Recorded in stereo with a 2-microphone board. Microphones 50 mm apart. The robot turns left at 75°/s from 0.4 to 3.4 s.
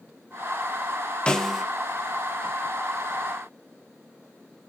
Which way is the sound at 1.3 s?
20° left (ahead or behind).